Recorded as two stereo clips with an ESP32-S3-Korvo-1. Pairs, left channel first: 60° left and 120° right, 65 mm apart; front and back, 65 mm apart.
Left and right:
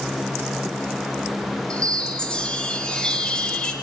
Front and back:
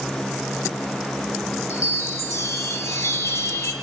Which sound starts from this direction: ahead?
A chime, at 1.7 s.